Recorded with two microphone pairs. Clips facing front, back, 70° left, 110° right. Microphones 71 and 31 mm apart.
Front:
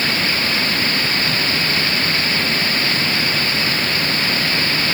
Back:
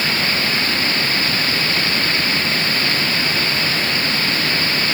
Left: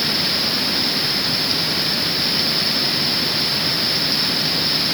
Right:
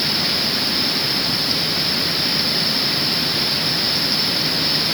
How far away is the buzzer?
No buzzer in this recording.